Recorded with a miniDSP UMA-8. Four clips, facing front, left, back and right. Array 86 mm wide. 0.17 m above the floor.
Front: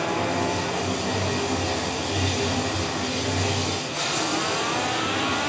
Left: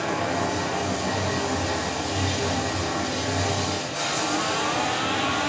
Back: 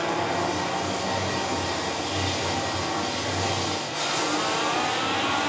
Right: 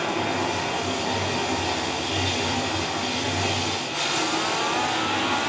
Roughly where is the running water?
Right.